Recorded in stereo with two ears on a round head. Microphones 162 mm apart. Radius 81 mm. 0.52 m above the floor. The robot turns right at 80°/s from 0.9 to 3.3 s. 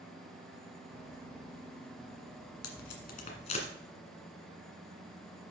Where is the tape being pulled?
90° left, 1.8 m; by 3.7 s 40° left (ahead or behind), 1.8 m.